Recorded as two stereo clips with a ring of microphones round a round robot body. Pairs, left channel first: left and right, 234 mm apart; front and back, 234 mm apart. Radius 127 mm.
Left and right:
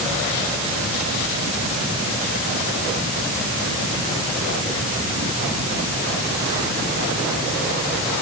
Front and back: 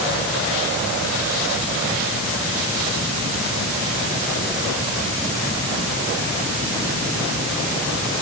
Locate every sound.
Only background noise.